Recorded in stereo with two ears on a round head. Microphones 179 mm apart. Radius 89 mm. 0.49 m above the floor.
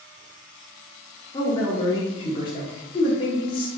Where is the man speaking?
25° left (ahead or behind), 0.7 m.